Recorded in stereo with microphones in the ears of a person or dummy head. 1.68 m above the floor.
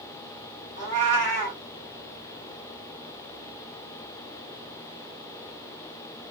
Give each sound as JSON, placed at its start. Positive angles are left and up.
{"t": 0.8, "sound": "a cat meowing", "side_deg": 15, "distance_m": 1.2}